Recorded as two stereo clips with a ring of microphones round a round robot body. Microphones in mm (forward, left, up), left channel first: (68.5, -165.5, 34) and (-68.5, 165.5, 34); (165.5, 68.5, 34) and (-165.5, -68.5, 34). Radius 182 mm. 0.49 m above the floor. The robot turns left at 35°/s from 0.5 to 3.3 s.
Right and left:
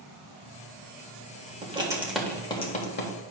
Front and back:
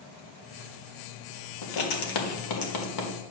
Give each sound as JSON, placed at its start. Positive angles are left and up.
{"t": 1.6, "sound": "writing", "azimuth_deg": 40, "distance_m": 1.4}